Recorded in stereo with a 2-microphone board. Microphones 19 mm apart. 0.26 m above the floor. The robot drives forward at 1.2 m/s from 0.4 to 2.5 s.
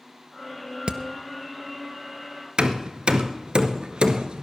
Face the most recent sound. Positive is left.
turn(degrees=-60)  # may be behind; listen again after turning